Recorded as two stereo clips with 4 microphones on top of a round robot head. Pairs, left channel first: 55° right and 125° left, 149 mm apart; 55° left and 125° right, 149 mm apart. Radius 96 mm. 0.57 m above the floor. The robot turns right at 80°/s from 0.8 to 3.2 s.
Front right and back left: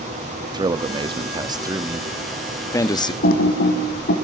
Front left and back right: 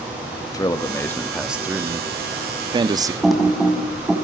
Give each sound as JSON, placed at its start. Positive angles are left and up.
{"t": 0.5, "sound": "a man speaking", "azimuth_deg": 100, "distance_m": 1.2}
{"t": 3.2, "sound": "typing on a keyboard", "azimuth_deg": -35, "distance_m": 3.5}